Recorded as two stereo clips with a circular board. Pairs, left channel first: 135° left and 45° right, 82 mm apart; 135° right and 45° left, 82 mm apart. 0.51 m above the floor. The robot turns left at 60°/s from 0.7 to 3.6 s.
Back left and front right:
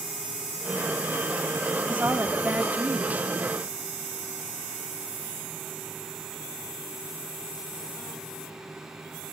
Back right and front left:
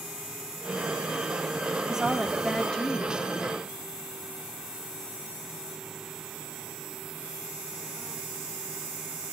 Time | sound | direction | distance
1.8 | a woman speaking | 15° right | 1.0 m